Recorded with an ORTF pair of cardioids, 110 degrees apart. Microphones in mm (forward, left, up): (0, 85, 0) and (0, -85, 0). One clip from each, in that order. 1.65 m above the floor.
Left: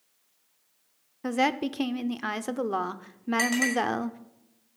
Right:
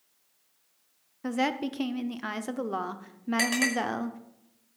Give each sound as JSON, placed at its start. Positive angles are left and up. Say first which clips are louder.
{"t": 1.2, "sound": "a woman speaking", "louder": "left 3 dB", "azimuth_deg": 15, "distance_m": 0.7}
{"t": 3.4, "sound": "a clink", "louder": "left 1 dB", "azimuth_deg": -35, "distance_m": 5.5}